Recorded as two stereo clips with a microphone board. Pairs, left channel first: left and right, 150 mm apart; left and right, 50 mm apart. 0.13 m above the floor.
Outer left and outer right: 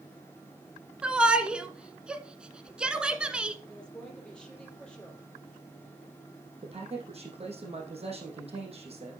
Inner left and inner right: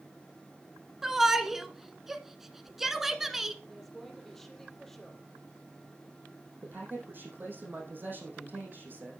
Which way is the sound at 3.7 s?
5° left (ahead or behind).